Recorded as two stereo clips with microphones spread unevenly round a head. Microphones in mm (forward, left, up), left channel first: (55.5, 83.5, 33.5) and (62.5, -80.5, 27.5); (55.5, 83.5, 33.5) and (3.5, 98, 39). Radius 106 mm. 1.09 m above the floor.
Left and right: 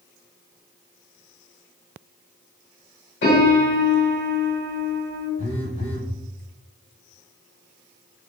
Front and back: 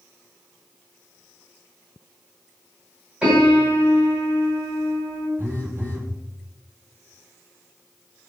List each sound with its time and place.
3.2 s a piano: 90° left, 1.7 m
5.4 s a phone buzzing: 110° left, 1.8 m